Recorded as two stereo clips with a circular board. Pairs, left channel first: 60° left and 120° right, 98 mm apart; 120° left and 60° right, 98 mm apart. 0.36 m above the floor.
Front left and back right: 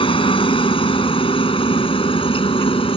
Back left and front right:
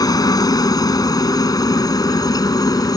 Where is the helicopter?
75° left; by 3.0 s 70° left.